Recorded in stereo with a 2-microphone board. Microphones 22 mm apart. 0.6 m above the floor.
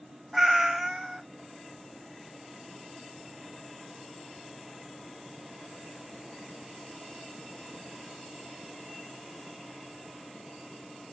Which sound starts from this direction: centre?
A cat meowing, at 0.3 s.